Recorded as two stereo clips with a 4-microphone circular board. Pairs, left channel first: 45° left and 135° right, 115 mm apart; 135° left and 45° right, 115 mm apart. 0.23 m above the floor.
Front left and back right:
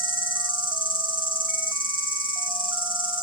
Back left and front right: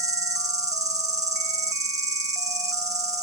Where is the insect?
10° left, 2.5 m.